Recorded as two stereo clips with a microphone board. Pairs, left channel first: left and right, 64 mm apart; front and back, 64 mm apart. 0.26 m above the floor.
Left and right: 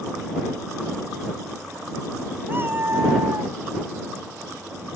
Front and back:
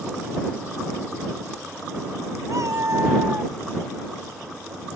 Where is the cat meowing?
145° right; by 3.5 s 125° right.